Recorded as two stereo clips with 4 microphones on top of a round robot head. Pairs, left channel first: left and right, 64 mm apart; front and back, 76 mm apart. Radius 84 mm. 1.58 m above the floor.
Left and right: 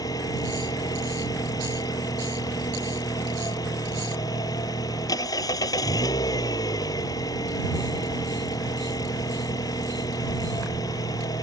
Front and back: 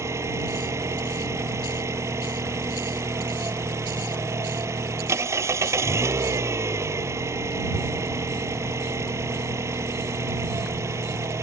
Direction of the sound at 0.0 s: 130° left.